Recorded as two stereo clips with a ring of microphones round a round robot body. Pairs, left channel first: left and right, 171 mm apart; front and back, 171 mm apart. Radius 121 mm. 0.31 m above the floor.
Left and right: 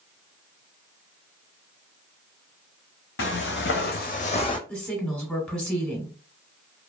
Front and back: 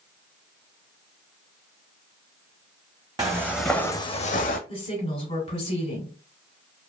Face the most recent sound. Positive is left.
turn(degrees=15)